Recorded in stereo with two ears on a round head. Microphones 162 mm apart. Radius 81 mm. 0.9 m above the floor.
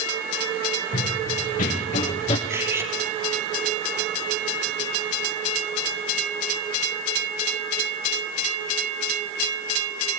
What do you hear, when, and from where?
0.9 s running footsteps: 50° left (ahead or behind), 5.5 m; by 2.4 s 35° left (ahead or behind), 4 m
2.5 s cutlery clinking: 15° right (ahead or behind), 4.5 m